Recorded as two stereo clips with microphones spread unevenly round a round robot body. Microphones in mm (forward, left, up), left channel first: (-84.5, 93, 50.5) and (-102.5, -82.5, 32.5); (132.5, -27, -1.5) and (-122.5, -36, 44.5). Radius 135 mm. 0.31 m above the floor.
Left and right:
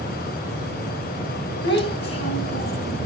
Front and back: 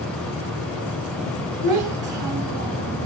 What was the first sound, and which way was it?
A child speaking, 100° left.